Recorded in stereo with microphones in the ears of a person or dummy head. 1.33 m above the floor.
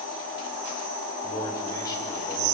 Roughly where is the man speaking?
Centre.